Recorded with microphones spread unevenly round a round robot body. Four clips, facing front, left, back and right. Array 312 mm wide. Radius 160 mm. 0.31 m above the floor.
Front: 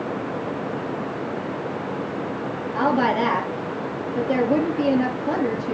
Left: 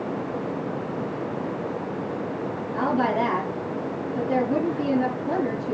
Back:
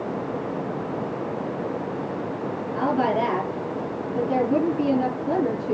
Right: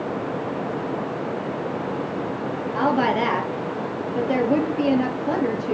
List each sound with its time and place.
2.7 s a woman speaking: 55° right, 7.5 m